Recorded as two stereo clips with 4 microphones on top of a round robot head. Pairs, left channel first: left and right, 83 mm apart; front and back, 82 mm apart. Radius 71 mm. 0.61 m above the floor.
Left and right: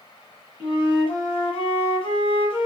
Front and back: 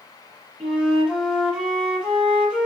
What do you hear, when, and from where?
0.6 s a flute: 100° left, 7 m